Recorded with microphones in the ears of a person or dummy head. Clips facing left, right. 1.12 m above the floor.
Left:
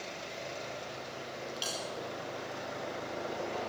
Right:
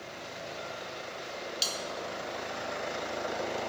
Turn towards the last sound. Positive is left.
turn(degrees=-25)  # may be behind; listen again after turning